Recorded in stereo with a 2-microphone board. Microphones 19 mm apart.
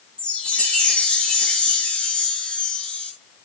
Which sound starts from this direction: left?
A chime, at 0.2 s.